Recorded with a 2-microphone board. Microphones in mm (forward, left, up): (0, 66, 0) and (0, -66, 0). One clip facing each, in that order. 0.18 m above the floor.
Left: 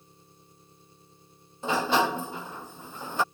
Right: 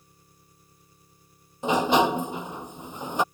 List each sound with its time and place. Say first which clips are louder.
0.0 s an engine running: left 3 dB; 25° left (ahead or behind)
1.6 s a sliding door: right 4 dB; 20° right (ahead or behind)